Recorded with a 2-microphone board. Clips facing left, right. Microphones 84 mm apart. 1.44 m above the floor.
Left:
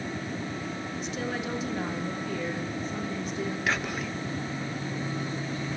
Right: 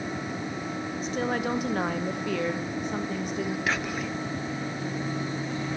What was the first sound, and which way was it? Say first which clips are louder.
A woman speaking: right 6 dB; 40° right (ahead or behind).